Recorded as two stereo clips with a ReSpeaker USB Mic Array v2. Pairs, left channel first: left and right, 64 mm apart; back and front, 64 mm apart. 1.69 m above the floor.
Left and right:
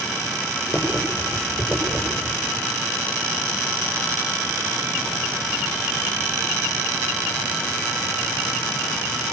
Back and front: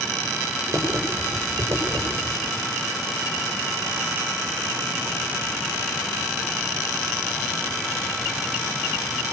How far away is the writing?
About 6.5 m.